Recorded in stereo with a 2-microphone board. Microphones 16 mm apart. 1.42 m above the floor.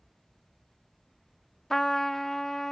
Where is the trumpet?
30° left (ahead or behind), 0.6 m.